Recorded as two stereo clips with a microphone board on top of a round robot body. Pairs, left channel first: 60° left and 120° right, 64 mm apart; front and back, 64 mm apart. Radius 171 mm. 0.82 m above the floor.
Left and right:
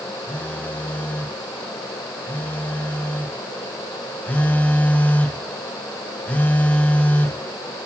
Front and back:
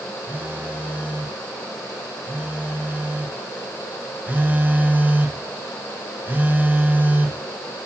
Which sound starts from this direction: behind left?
A phone buzzing, at 0.3 s.